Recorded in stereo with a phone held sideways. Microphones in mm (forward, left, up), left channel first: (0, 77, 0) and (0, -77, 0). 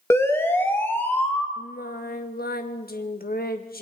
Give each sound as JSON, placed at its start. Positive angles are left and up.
{"t": 0.1, "sound": "a siren", "side_deg": 15, "distance_m": 2.5}
{"t": 1.6, "sound": "singing", "side_deg": 75, "distance_m": 1.6}